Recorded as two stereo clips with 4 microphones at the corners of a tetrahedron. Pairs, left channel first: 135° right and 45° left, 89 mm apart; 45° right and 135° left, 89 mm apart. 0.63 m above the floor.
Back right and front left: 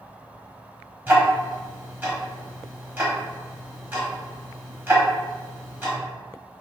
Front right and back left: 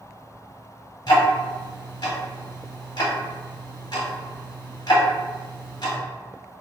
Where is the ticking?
20° right, 0.8 m.